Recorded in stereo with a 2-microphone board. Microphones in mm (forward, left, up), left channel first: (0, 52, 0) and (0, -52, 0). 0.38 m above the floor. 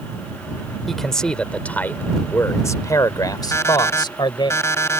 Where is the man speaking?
Centre (ahead or behind); by 4.5 s 50° left (ahead or behind).